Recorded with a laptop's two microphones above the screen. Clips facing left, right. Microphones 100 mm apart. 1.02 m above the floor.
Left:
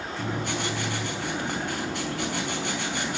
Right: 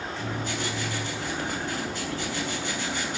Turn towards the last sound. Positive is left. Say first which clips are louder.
# left 3 dB
turn(degrees=60)  # may be behind; listen again after turning